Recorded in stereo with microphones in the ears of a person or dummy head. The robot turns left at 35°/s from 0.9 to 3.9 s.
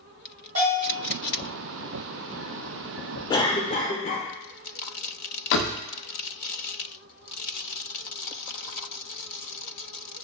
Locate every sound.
0.6 s a bell: 55° right (ahead or behind), 2 m
3.3 s a cough: 25° left (ahead or behind), 0.9 m; by 4.3 s 45° left (ahead or behind), 0.9 m
5.5 s a door slam: 65° left (ahead or behind), 0.5 m